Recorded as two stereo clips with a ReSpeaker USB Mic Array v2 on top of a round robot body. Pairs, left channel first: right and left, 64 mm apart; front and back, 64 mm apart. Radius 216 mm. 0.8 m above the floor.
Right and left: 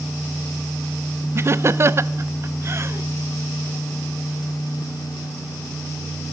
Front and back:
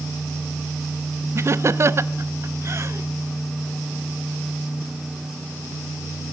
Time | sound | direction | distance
1.4 | laughter | 135° left | 0.7 m